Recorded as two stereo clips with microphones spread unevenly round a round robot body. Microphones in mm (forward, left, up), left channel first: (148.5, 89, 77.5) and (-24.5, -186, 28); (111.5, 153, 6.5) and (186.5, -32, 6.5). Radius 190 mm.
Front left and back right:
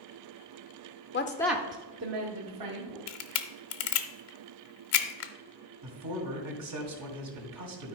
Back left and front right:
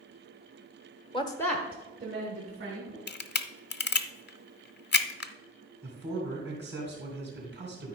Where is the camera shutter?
75° left, 0.8 m.